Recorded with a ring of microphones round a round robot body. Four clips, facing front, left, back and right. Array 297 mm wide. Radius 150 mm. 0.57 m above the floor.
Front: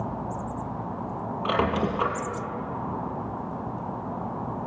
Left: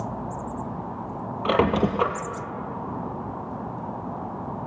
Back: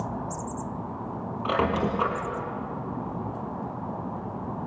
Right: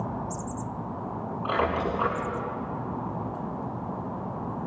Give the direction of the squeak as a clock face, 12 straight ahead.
9 o'clock.